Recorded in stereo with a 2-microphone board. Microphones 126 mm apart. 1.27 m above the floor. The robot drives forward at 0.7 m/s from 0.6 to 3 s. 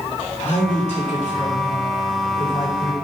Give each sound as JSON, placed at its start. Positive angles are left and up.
{"t": 0.4, "sound": "a woman speaking", "side_deg": 65, "distance_m": 3.5}